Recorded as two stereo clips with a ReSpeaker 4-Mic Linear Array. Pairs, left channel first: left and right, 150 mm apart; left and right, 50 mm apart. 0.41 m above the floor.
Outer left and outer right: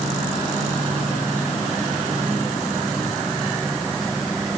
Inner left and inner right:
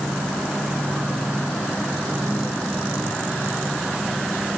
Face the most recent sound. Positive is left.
No sound to turn to.